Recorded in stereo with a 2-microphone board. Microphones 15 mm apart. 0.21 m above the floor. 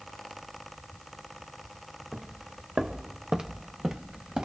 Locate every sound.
2.1 s footsteps: 50° right (ahead or behind), 1.3 m; by 4.5 s 80° right, 1.7 m